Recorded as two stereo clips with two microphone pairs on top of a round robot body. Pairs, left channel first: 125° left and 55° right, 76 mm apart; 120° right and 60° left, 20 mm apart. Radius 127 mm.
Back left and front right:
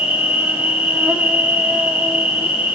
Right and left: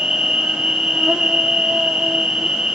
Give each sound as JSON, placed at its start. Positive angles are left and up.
{"t": 0.0, "sound": "an insect", "azimuth_deg": 15, "distance_m": 1.1}